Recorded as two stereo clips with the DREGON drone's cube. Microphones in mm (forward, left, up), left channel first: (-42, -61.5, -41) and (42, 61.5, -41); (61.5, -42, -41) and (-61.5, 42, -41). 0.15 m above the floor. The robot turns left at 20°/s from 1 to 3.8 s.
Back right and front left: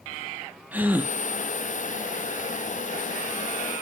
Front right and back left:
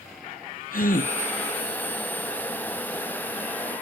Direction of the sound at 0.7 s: 20° right.